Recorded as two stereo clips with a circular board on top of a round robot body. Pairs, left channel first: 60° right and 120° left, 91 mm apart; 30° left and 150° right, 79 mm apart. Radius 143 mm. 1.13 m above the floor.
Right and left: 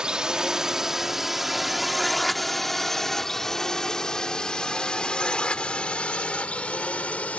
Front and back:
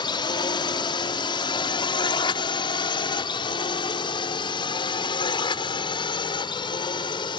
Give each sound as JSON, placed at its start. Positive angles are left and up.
{"t": 0.0, "sound": "a drone", "azimuth_deg": 40}